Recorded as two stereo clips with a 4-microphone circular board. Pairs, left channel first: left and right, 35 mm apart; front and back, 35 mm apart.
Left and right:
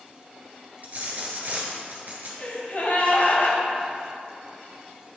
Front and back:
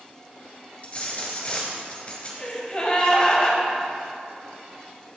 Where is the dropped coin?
55° right, 1.7 m.